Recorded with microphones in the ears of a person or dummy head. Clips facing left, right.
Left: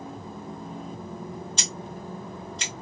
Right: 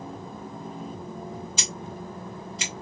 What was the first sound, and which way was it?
Scissors, centre (ahead or behind).